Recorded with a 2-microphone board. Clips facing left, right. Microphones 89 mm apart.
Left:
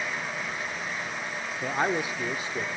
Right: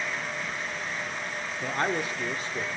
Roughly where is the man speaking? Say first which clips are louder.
Left 2 dB; centre.